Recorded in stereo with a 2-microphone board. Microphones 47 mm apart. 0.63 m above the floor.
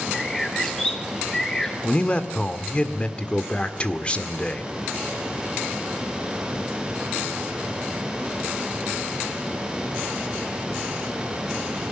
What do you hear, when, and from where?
0.1 s a bird: 15° left (ahead or behind), 4 m
1.8 s a man speaking: 25° left (ahead or behind), 1.7 m